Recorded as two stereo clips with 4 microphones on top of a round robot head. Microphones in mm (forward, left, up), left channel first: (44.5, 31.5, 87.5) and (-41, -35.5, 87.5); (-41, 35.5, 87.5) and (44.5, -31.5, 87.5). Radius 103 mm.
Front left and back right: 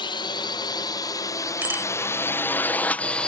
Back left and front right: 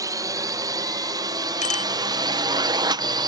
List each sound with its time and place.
0.0 s a drone: 10° left; by 3.3 s 40° right
1.6 s a bicycle bell: 145° left